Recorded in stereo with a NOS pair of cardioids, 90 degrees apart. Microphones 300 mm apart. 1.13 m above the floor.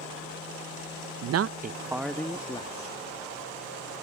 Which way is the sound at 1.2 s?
70° right.